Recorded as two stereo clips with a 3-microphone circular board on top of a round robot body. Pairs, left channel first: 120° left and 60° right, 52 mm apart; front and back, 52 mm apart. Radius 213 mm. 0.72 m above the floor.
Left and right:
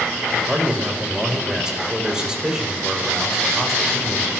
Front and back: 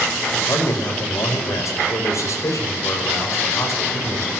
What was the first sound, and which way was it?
A man speaking, 15° left.